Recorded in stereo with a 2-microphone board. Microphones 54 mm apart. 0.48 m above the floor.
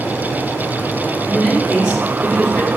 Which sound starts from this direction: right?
A man speaking, at 1.3 s.